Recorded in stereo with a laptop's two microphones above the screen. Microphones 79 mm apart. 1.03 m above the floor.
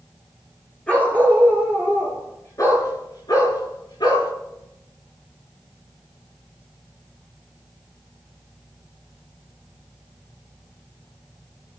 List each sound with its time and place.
0.9 s a dog barking: 20° left (ahead or behind), 5 m; by 4.3 s 70° left (ahead or behind), 5.5 m